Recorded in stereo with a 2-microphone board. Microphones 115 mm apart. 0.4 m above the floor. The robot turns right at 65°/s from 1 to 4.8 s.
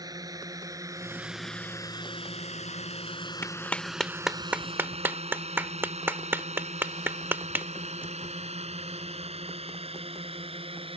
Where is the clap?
20° left (ahead or behind); by 8.1 s 20° right (ahead or behind).